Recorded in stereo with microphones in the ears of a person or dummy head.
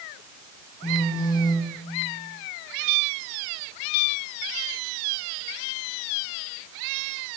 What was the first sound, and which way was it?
A phone buzzing, 25° left (ahead or behind).